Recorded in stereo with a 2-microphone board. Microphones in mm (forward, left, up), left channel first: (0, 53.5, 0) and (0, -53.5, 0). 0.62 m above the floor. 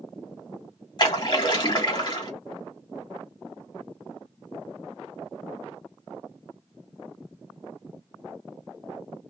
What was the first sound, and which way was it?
A splash, 35° left (ahead or behind).